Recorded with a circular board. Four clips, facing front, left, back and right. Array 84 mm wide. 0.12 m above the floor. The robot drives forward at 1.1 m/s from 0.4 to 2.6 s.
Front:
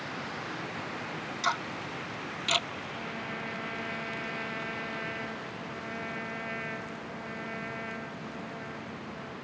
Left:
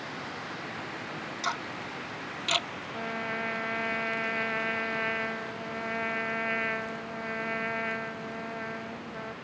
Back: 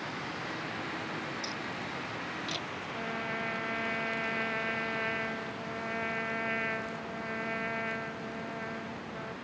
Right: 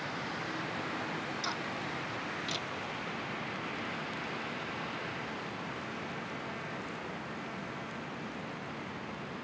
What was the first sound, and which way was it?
Ticking, 25° left.